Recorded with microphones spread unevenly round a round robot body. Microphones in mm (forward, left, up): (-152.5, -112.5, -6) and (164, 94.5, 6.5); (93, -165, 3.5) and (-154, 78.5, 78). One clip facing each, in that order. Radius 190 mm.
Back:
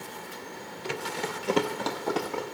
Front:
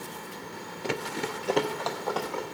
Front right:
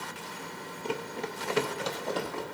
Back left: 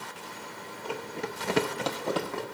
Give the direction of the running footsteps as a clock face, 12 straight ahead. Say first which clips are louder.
Front 2 dB, front right 1 dB; 11 o'clock.